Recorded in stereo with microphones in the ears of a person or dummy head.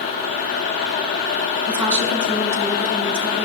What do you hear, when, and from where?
1.7 s a woman speaking: 10° right (ahead or behind), 4.5 m